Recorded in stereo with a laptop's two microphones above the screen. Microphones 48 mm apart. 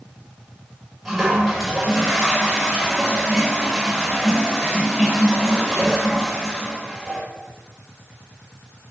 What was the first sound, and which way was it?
A toilet flushing, centre (ahead or behind).